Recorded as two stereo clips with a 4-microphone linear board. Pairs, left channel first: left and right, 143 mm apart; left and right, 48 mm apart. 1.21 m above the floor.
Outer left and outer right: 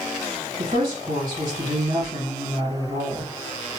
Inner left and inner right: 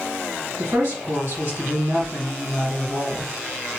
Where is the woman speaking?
65° right (ahead or behind), 2 m.